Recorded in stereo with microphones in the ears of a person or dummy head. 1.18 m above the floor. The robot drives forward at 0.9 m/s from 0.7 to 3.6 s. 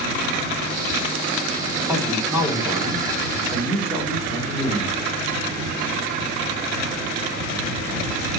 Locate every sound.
1.9 s a man speaking: 10° right (ahead or behind), 2.5 m; by 5.0 s 5° right (ahead or behind), 4 m